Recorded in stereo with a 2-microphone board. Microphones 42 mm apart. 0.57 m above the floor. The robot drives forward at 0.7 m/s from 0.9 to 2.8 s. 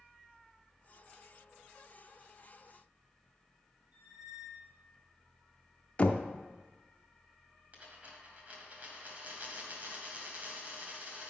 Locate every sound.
3.9 s a squeak: 35° right (ahead or behind), 2.5 m
6.0 s knocking: 30° left (ahead or behind), 0.5 m
7.7 s a dropped coin: 35° right (ahead or behind), 1.4 m